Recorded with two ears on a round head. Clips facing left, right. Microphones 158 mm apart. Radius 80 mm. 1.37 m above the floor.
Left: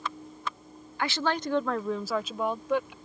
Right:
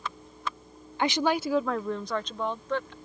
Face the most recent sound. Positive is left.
turn(degrees=10)  # may be behind; listen again after turning